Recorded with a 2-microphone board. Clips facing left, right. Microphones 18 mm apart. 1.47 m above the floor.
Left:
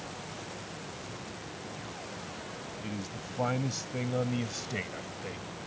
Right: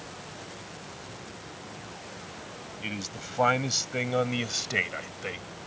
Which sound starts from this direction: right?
A man speaking, at 2.8 s.